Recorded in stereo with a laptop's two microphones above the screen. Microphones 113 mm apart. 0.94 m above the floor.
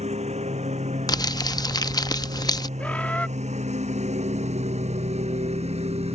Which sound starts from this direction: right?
A lawn mower, at 0.0 s.